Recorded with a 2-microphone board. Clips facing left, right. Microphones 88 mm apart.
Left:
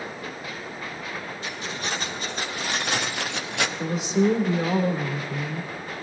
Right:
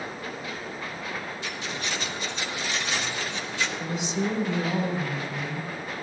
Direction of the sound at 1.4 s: 40° left (ahead or behind).